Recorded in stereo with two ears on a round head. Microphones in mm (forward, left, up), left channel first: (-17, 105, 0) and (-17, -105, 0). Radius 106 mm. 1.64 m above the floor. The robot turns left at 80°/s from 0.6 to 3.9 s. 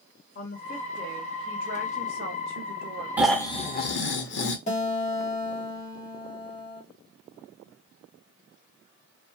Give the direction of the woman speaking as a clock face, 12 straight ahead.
10 o'clock.